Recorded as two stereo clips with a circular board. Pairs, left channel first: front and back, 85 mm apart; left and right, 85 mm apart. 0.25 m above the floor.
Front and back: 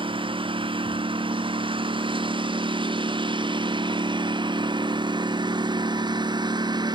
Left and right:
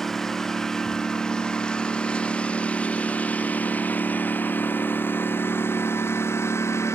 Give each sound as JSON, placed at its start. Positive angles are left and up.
{"t": 0.0, "sound": "a lawn mower", "azimuth_deg": 175}